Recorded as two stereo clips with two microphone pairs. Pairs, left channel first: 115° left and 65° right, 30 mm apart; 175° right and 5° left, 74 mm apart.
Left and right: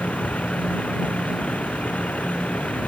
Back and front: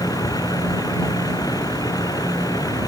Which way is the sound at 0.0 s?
155° left.